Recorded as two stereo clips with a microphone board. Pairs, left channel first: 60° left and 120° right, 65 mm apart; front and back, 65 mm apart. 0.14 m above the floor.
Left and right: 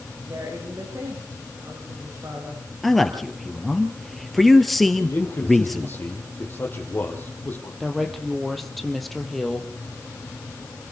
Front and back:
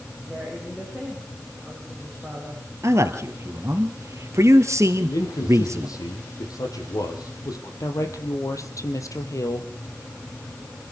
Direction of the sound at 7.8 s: 30° right.